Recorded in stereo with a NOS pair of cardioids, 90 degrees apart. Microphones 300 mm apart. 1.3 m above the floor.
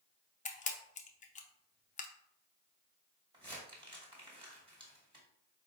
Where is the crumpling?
15° right, 1.4 m.